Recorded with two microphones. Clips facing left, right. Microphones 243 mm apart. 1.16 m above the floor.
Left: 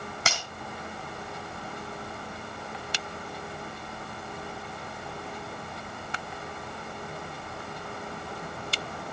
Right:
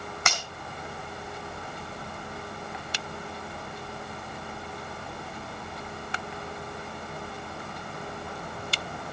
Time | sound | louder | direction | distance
0.3 | breaking glass | even | 30° left (ahead or behind) | 3.5 m